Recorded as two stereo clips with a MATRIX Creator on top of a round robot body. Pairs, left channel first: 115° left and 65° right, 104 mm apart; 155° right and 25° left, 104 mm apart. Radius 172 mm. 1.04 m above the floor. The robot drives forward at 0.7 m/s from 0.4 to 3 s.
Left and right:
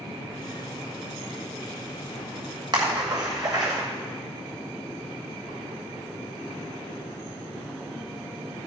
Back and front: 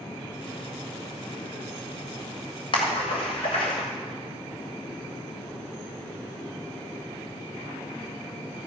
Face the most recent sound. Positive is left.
turn(degrees=-120)